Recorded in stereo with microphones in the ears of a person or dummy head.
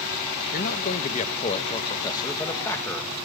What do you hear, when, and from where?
0.5 s a man speaking: 50° left (ahead or behind), 2 m; by 3.2 s 5° left (ahead or behind), 2.5 m